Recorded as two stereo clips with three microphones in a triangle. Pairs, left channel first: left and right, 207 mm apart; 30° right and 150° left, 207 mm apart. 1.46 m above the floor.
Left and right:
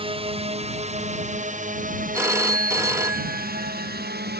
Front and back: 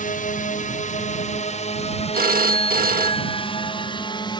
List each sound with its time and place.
0.0 s a drone: 45° right; by 4.4 s 95° right
2.1 s a phone ringing: 165° right